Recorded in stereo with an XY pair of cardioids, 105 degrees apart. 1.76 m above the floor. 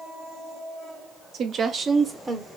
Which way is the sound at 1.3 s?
60° right.